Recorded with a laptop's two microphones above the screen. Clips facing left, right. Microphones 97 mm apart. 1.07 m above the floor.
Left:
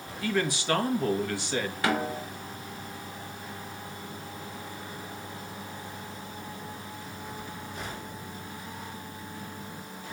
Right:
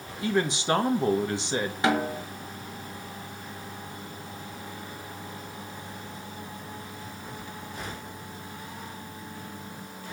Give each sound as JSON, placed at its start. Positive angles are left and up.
{"t": 0.2, "sound": "a man speaking", "side_deg": -25, "distance_m": 1.6}
{"t": 1.8, "sound": "a snare drum", "side_deg": -20, "distance_m": 1.2}